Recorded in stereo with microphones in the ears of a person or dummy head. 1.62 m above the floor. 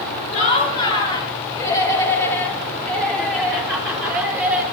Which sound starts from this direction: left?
Laughter, at 0.3 s.